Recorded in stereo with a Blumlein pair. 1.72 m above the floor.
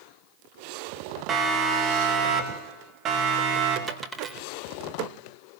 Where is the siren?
20° right, 4.5 m; by 3.8 s 35° right, 6 m.